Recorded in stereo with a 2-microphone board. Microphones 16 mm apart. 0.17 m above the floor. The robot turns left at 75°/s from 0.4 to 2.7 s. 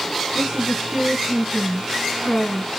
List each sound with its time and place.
0.3 s a woman speaking: 75° right, 1.5 m; by 2.8 s 110° left, 1.5 m